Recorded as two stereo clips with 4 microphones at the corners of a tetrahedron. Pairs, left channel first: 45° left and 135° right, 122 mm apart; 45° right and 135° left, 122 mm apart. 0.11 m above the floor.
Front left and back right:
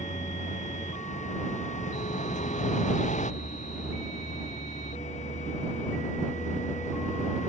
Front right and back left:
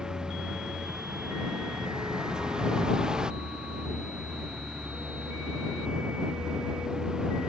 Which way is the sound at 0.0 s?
50° left.